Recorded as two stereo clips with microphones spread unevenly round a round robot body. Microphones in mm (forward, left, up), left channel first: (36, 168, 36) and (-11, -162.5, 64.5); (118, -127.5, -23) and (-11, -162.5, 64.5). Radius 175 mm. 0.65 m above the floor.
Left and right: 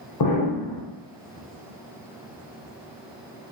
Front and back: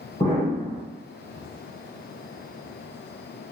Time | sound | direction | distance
0.2 | an explosion | 75° left | 2 m